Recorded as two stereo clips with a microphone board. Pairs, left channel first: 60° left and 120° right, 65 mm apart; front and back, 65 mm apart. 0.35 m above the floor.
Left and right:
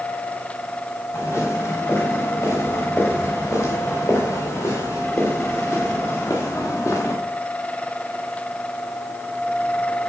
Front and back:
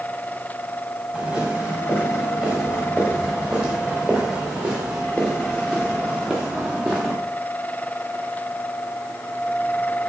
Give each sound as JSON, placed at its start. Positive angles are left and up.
{"t": 1.1, "sound": "footsteps", "azimuth_deg": 110, "distance_m": 6.0}